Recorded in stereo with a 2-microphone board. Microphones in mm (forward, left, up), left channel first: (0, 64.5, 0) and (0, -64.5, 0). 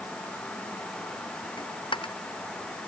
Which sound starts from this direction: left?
A dropped coin, at 1.6 s.